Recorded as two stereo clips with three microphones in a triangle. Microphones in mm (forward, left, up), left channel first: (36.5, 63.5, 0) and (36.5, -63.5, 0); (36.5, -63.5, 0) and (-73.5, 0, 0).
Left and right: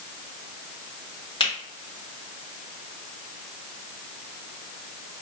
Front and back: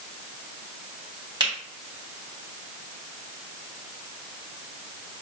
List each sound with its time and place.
1.4 s a finger snap: 110° left, 1.8 m